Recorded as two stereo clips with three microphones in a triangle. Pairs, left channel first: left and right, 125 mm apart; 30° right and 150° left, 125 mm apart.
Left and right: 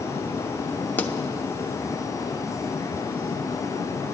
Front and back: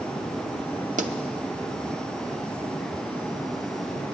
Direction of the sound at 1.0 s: 165° left.